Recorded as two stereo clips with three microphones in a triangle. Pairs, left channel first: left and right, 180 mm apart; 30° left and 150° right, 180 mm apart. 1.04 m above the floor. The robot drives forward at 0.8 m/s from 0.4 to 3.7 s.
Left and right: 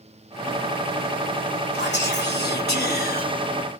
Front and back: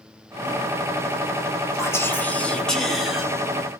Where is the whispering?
105° left, 3 m; by 3.2 s 125° left, 3.5 m.